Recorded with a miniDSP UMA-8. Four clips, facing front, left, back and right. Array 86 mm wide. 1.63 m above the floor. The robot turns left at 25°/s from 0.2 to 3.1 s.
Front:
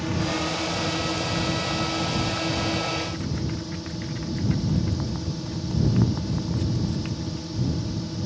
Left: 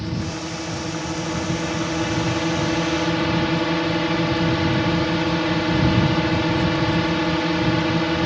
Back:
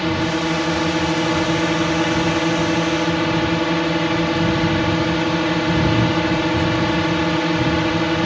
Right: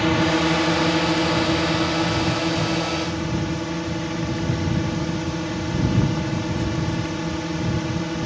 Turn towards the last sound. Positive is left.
turn(degrees=155)